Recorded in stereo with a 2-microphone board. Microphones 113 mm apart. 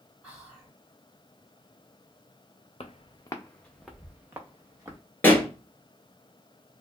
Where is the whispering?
10° right (ahead or behind), 1.9 m.